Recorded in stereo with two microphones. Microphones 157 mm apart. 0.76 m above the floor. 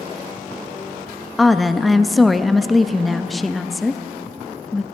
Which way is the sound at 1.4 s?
Centre (ahead or behind).